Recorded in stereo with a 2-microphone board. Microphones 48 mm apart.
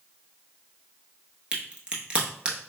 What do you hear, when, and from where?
1.5 s a crack: 20° right (ahead or behind), 0.9 m